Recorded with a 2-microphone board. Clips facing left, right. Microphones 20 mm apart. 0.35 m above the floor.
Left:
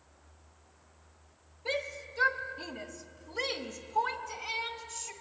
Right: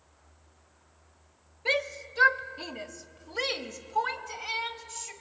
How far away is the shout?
About 1.1 m.